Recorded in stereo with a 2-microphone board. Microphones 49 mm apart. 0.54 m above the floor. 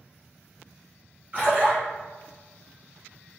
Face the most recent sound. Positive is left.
turn(degrees=-40)  # may be behind; listen again after turning